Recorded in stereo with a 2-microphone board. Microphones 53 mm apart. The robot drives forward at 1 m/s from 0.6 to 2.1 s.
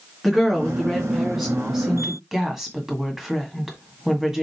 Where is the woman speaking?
5° right (ahead or behind), 3 m.